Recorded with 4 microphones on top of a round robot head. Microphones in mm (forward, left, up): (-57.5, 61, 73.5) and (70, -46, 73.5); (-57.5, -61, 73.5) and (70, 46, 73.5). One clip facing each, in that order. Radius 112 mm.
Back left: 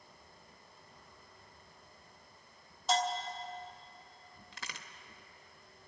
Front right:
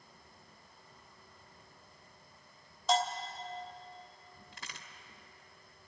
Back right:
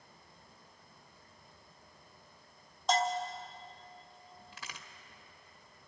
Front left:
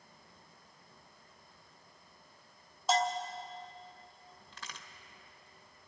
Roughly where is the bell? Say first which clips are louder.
Front right 1 dB, even; ahead right.